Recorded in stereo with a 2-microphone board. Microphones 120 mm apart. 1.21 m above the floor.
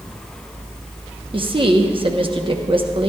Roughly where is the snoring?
I don't hear snoring.